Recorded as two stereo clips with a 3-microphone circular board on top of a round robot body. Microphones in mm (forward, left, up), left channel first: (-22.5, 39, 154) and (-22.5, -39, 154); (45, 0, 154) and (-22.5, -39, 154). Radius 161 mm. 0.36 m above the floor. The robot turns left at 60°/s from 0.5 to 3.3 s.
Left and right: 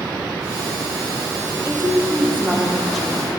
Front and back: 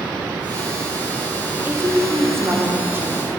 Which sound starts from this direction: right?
A woman speaking, at 1.6 s.